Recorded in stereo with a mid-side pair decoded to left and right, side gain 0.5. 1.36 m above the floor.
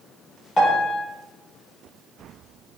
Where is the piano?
30° left, 2.5 m.